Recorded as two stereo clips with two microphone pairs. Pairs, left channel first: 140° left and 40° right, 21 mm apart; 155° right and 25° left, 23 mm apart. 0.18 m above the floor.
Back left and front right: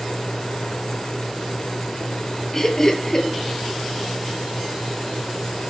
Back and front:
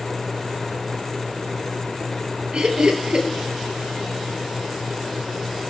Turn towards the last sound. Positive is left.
turn(degrees=70)